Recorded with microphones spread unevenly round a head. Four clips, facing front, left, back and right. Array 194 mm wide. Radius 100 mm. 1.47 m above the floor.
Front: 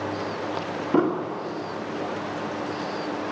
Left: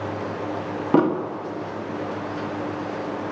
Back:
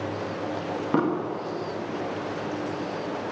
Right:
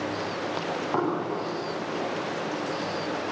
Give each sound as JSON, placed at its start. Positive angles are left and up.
{"t": 0.9, "sound": "an explosion", "azimuth_deg": 95, "distance_m": 1.6}